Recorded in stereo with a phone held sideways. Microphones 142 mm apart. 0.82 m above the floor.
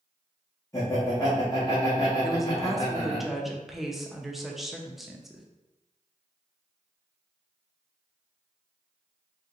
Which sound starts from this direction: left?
Laughter, at 0.7 s.